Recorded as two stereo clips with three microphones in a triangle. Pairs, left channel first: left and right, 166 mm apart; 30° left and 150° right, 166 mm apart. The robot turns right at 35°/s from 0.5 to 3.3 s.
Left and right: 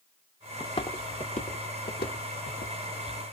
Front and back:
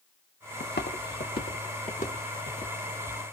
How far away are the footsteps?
About 0.9 m.